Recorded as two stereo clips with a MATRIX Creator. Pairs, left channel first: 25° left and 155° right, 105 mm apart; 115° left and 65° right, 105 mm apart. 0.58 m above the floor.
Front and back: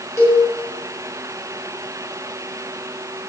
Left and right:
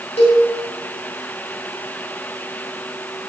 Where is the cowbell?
90° left, 4.5 m.